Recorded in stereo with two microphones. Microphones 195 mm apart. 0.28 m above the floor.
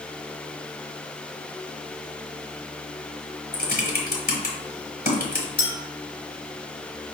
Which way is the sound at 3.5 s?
50° left (ahead or behind).